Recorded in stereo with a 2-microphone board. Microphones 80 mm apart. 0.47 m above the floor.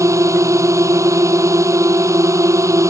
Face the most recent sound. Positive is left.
turn(degrees=-45)  # may be behind; listen again after turning